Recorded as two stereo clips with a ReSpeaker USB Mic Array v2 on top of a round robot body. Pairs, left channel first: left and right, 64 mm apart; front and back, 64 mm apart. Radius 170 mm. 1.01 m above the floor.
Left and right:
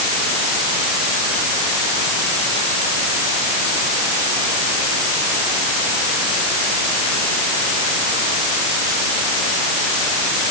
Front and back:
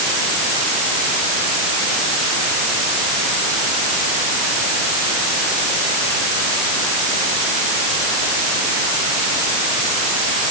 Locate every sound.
Only background noise.